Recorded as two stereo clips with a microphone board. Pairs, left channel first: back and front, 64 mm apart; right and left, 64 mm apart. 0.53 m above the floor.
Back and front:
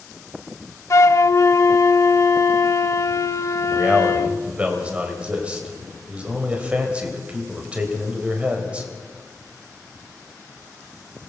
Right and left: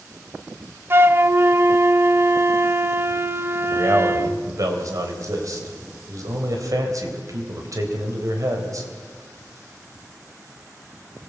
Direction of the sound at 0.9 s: 145° left.